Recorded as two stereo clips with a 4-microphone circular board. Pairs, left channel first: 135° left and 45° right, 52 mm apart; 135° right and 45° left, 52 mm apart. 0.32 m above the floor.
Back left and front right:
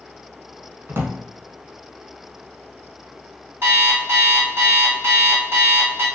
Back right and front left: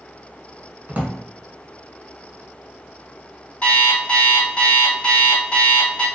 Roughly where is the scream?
No scream in this recording.